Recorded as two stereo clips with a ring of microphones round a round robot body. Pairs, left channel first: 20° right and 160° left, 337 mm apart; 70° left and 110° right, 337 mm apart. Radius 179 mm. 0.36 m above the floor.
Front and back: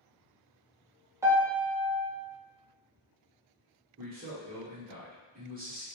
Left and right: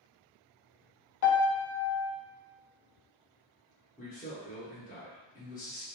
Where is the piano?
75° left, 0.5 m.